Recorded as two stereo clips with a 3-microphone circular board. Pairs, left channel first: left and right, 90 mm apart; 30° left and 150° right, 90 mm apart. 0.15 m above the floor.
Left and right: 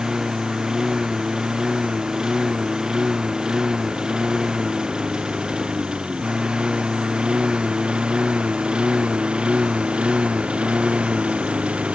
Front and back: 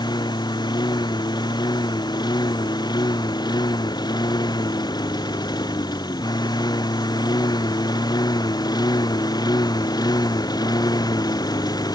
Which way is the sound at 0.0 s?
5° right.